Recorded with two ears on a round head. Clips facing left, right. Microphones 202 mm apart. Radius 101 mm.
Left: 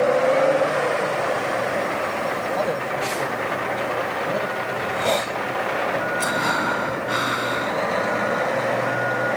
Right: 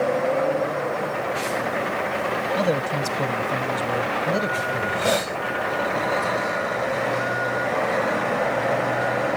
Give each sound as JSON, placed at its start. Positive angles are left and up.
{"t": 2.6, "sound": "a man speaking", "side_deg": -40}
{"t": 4.8, "sound": "a hiss", "side_deg": -10}
{"t": 6.2, "sound": "breathing", "side_deg": 85}